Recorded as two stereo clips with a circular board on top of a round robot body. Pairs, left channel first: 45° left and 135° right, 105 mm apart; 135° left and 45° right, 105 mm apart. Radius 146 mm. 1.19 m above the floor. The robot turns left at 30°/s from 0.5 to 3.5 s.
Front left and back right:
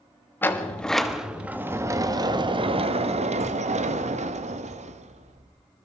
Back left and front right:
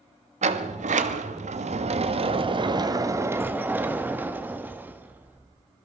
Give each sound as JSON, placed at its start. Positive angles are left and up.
{"t": 0.4, "sound": "a sliding door", "azimuth_deg": -30, "distance_m": 1.4}